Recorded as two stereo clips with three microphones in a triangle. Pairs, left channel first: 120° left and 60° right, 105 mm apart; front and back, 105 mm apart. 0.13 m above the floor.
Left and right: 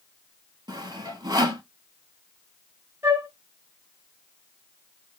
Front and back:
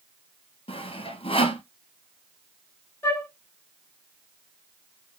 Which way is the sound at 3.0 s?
40° right.